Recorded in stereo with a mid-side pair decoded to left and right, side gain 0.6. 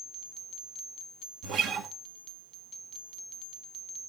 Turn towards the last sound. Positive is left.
turn(degrees=-65)